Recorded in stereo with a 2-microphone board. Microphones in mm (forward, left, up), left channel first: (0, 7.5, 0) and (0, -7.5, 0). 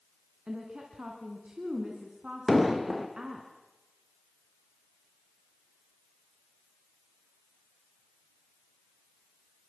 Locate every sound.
0.5 s a woman speaking: 70° right (ahead or behind), 3.5 m
2.5 s an explosion: 10° right (ahead or behind), 2.5 m